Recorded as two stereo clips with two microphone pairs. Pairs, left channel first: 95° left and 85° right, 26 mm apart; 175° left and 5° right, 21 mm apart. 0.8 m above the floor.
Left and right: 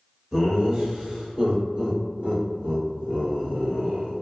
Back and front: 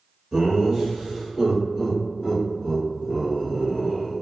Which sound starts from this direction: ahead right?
Laughter, at 0.3 s.